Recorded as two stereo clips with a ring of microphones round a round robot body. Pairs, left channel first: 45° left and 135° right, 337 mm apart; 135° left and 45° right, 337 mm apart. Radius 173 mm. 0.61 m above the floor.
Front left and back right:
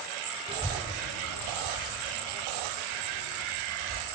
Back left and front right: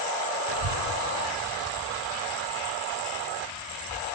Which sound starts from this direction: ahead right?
A child speaking, at 0.5 s.